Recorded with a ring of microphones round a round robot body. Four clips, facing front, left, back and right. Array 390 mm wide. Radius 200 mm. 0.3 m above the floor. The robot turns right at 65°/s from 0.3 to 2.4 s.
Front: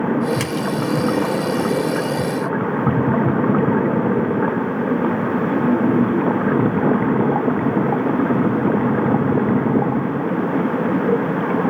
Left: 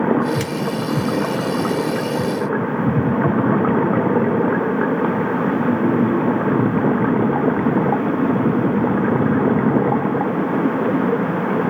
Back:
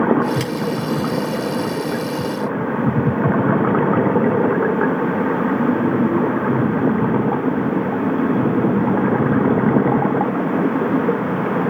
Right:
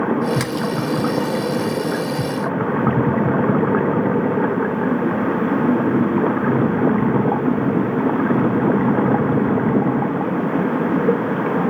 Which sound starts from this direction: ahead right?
A splash, at 0.4 s.